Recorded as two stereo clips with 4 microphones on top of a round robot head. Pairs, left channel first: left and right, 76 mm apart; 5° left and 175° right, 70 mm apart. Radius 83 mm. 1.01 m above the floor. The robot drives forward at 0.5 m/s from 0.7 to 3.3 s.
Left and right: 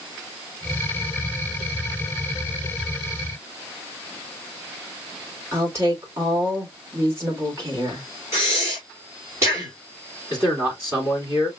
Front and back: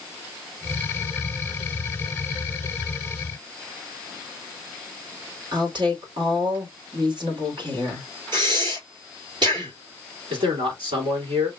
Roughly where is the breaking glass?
No breaking glass in this recording.